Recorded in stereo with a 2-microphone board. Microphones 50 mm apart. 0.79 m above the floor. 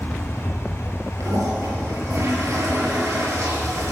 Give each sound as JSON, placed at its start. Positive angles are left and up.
{"t": 1.2, "sound": "a toilet flushing", "side_deg": -85, "distance_m": 7.5}